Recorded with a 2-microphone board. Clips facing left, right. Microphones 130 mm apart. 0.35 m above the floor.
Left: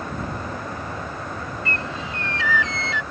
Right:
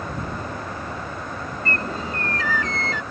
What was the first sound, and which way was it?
A bird, 45° right (ahead or behind).